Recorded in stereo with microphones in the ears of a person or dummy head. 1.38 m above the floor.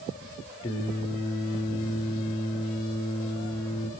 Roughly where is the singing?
Left.